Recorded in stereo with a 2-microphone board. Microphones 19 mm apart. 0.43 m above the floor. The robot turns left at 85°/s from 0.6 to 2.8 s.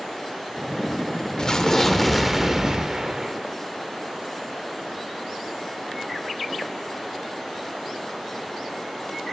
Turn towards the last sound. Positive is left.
turn(degrees=-55)